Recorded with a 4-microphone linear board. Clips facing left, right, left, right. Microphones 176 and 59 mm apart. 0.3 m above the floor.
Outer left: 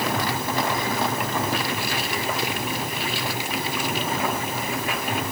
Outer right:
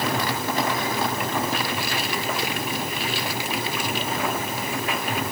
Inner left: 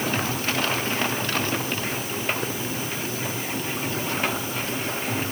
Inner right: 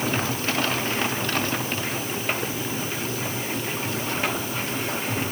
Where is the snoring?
No snoring in this recording.